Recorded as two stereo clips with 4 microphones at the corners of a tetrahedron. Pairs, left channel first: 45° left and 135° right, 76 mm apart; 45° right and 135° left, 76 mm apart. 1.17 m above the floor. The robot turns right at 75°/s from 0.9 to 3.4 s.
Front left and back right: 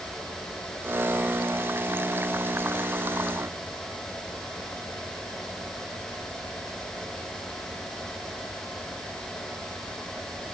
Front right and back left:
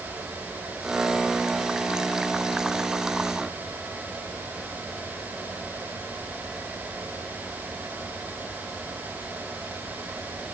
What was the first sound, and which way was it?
Only background noise.